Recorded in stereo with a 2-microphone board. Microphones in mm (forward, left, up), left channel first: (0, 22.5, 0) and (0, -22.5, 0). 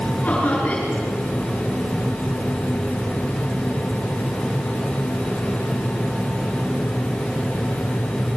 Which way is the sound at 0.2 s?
30° left (ahead or behind).